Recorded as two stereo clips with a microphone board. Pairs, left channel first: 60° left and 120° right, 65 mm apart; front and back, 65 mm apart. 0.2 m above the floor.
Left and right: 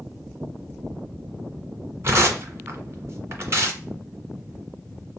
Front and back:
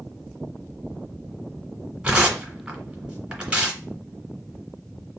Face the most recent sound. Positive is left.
turn(degrees=-110)